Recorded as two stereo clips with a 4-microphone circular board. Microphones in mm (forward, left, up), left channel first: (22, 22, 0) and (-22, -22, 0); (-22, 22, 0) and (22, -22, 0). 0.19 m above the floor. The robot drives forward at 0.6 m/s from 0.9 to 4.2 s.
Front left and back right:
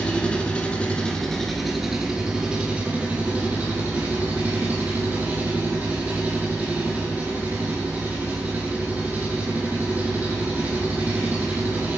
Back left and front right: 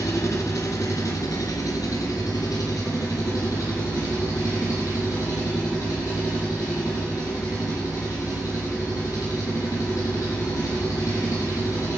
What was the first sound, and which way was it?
An engine running, 110° left.